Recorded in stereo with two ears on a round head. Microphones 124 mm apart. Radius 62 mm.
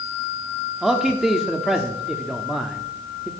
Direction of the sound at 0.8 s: Centre (ahead or behind).